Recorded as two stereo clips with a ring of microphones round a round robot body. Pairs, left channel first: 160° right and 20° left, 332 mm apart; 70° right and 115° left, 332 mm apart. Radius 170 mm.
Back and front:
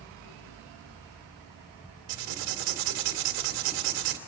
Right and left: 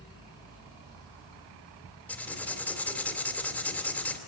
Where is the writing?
20° left, 2.5 m.